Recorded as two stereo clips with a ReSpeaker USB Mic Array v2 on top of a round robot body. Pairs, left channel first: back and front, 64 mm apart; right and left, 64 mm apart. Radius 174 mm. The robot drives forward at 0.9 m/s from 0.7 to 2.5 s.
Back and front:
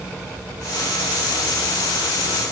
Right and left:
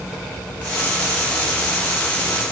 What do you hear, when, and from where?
Only background noise.